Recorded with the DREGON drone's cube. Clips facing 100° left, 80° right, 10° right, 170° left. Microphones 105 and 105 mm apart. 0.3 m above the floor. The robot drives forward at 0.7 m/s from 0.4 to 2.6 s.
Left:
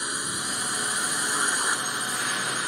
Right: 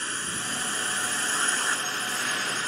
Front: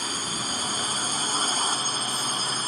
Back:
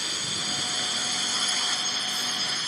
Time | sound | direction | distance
0.0 | a drone | 30° left | ?